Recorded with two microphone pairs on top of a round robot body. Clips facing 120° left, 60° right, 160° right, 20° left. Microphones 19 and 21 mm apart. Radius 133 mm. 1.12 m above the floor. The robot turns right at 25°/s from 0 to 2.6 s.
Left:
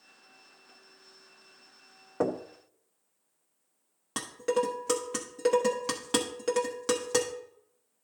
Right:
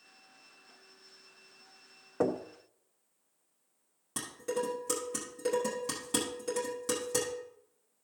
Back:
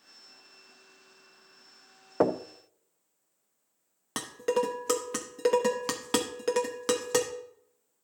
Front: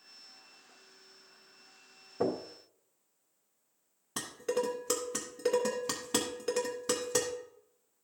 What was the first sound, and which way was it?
Knocking, 150° right.